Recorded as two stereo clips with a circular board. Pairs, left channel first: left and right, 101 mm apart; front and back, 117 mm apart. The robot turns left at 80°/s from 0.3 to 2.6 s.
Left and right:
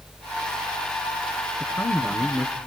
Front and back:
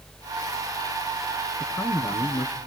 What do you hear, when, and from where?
1.6 s a man speaking: 75° left, 2.0 m; by 2.5 s straight ahead, 2.0 m